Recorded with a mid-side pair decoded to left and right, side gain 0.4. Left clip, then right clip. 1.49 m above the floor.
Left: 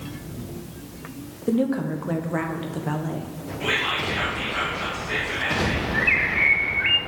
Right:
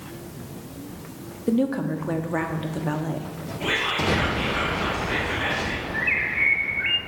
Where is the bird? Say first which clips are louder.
Left 2 dB; 20° left, 0.6 m.